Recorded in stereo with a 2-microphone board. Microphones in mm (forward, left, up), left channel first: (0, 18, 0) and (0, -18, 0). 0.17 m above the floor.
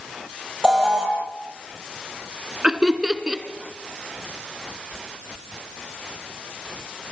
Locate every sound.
0.6 s an alarm: 20° right (ahead or behind), 7.5 m
2.6 s laughter: 20° right (ahead or behind), 2 m